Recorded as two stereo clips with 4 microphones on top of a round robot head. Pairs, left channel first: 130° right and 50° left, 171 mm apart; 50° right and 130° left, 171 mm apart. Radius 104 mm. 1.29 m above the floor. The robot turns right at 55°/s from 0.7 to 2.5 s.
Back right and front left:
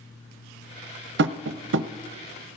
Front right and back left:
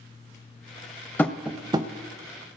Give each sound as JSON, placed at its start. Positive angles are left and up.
{"t": 1.2, "sound": "tapping", "azimuth_deg": 30, "distance_m": 0.6}